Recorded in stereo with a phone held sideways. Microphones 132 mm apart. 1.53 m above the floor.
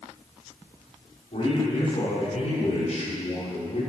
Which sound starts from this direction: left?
A man speaking, at 1.3 s.